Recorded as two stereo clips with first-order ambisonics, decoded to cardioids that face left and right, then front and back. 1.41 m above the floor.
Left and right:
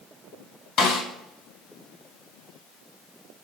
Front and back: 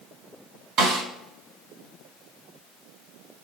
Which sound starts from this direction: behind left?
A snare drum, at 0.8 s.